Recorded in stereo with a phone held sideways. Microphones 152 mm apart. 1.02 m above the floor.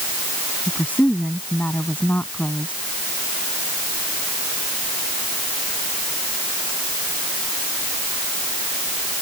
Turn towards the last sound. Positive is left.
turn(degrees=10)  # may be behind; listen again after turning